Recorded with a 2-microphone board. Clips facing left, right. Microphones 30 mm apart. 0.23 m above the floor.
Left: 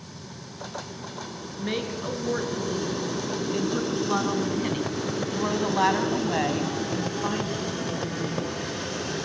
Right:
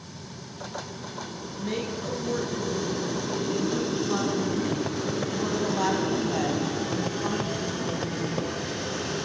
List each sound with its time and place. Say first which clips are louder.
1.6 s a woman speaking: left 1 dB; 35° left (ahead or behind), 3 m; by 8.8 s 15° left (ahead or behind), 1.7 m